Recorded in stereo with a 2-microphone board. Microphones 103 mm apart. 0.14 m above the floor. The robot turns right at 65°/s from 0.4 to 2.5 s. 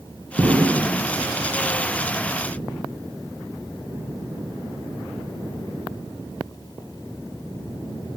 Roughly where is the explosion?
Ahead right.